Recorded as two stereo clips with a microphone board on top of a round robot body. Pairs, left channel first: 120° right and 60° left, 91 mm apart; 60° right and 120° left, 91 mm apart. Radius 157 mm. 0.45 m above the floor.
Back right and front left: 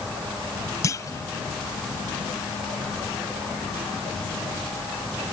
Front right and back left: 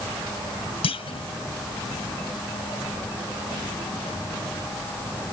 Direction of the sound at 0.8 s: 65° right.